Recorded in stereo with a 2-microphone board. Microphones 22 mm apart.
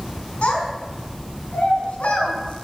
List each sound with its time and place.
0.4 s a child speaking: 70° left (ahead or behind), 4.5 m